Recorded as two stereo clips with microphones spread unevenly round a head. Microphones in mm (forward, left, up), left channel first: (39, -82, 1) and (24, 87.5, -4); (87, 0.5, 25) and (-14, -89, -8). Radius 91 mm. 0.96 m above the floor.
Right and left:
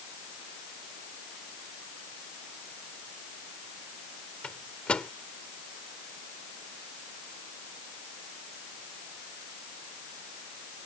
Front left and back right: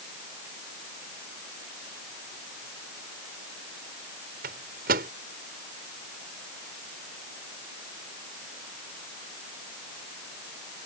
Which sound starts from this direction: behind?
A microwave, at 4.4 s.